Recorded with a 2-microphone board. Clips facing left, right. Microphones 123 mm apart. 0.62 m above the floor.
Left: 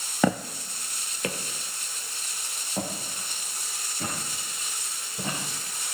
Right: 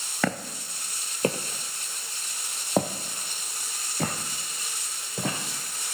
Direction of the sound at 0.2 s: 20° left (ahead or behind).